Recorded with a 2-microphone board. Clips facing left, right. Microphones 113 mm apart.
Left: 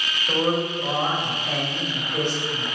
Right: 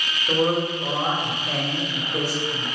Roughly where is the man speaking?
Centre.